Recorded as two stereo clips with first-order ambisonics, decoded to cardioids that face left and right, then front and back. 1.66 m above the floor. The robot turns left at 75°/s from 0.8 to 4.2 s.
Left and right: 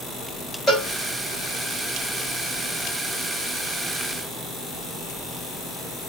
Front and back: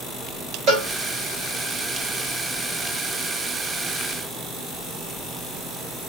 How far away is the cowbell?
About 2 m.